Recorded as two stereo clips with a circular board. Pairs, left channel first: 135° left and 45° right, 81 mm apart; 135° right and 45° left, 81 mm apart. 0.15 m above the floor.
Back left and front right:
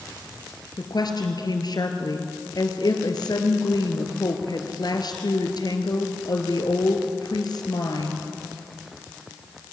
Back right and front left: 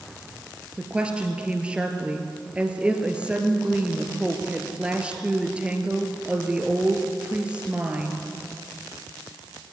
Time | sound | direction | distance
0.8 | a woman speaking | 120° left | 2.5 m